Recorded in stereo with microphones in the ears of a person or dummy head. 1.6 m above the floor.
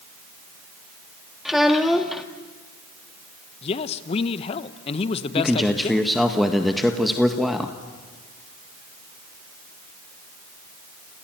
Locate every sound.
1.4 s a child speaking: 5° left (ahead or behind), 1.4 m
3.6 s a man speaking: 45° left (ahead or behind), 1.2 m
5.3 s a man speaking: 5° left (ahead or behind), 1.5 m